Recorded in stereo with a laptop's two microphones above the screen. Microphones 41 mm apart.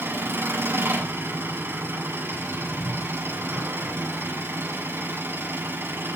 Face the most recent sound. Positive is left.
turn(degrees=-70)  # may be behind; listen again after turning